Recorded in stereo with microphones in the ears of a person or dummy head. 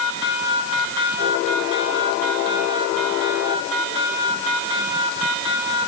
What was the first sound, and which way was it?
Only background noise.